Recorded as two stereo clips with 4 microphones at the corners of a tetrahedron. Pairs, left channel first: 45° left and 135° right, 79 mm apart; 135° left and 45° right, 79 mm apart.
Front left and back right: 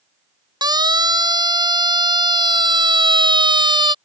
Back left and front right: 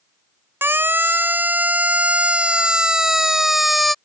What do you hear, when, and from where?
0.6 s a siren: 105° right; by 4.0 s 135° right